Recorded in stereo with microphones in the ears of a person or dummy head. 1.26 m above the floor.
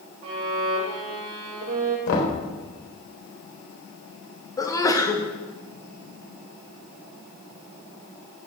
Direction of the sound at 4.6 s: 20° left (ahead or behind).